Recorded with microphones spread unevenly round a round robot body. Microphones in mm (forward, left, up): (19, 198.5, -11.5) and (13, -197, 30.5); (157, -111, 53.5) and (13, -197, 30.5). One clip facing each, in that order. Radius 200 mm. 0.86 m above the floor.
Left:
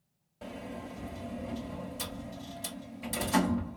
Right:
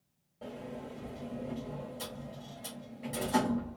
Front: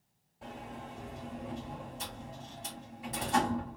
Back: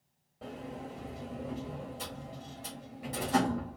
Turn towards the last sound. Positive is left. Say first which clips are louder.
# left 1 dB, back 3 dB
turn(degrees=145)